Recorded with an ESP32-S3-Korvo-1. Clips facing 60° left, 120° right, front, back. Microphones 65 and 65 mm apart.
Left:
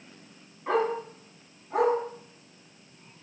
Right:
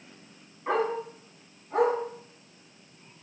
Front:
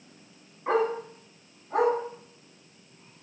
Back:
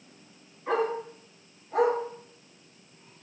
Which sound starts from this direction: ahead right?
A dog barking, at 0.7 s.